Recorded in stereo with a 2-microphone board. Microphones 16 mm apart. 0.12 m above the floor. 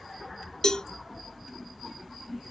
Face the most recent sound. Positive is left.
turn(degrees=50)  # may be behind; listen again after turning